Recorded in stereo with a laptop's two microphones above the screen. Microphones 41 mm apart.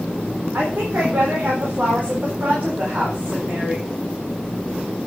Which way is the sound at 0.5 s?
65° right (ahead or behind).